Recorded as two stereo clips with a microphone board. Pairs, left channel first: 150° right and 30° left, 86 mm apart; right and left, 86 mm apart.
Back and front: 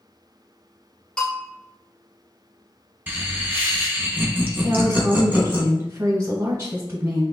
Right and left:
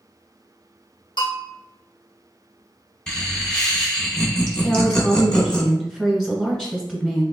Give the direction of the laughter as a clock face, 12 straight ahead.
1 o'clock.